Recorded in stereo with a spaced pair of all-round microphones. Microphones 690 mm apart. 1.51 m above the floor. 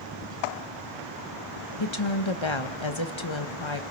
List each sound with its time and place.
1.8 s a woman speaking: 40° left (ahead or behind), 1.3 m